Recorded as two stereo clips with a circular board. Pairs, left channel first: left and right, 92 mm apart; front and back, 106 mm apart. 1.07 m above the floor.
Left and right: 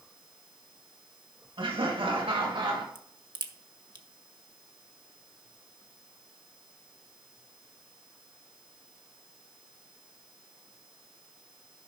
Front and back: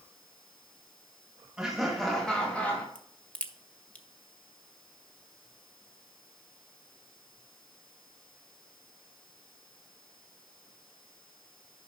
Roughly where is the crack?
Right.